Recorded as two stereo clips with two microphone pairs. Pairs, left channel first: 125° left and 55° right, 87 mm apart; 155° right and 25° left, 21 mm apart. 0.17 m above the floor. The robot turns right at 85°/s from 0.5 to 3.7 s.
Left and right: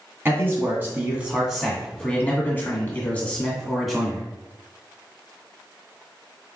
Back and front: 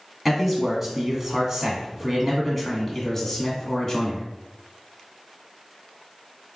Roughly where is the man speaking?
Ahead right.